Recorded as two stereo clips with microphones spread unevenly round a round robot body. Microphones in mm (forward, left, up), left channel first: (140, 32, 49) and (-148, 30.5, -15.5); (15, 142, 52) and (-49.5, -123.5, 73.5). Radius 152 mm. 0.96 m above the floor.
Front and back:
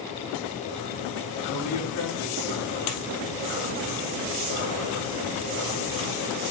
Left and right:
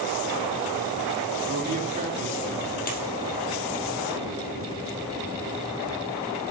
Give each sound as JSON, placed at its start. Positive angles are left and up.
{"t": 1.5, "sound": "a man speaking", "azimuth_deg": -40, "distance_m": 3.5}
{"t": 2.9, "sound": "a dropped coin", "azimuth_deg": 15, "distance_m": 2.5}